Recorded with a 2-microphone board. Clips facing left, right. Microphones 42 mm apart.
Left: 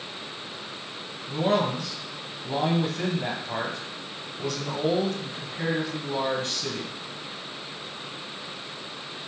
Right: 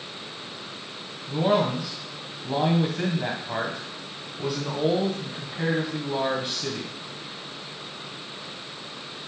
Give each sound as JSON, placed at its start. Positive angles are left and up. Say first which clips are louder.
{"t": 1.3, "sound": "a man speaking", "louder": "right 2 dB", "side_deg": -15, "distance_m": 1.3}